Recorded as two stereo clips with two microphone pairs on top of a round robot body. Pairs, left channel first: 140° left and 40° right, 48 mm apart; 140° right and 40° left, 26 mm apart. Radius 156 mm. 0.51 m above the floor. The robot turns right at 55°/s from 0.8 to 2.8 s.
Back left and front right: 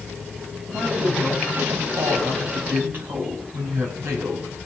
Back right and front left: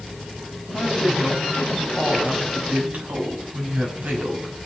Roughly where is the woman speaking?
Right.